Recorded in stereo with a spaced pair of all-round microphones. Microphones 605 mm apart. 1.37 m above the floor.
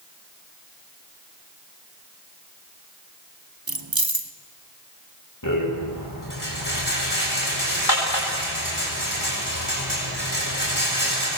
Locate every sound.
3.7 s keys jangling: 35° right (ahead or behind), 1.2 m
5.4 s a rattle: 30° left (ahead or behind), 8 m